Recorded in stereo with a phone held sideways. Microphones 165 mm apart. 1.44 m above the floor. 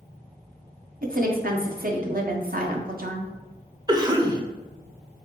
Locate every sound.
1.0 s a woman speaking: 60° right (ahead or behind), 0.9 m
3.9 s a cough: 25° right (ahead or behind), 0.8 m